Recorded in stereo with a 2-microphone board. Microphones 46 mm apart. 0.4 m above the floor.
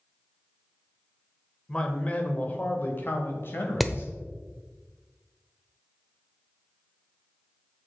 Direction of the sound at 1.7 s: 20° left (ahead or behind).